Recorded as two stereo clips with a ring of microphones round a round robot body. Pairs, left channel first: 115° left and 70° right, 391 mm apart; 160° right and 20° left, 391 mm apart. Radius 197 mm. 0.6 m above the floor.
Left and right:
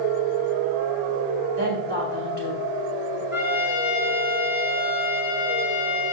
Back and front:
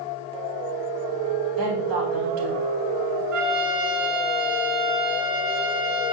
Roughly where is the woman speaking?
Ahead.